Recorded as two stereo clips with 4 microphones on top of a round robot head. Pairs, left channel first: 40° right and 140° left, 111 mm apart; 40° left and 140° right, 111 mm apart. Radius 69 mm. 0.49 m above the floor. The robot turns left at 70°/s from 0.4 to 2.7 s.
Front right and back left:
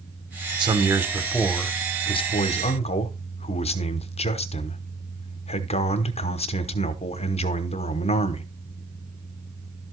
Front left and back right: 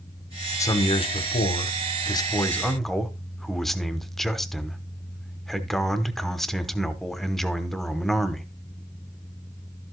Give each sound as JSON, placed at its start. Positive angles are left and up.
{"t": 0.6, "sound": "a man speaking", "azimuth_deg": 100, "distance_m": 1.1}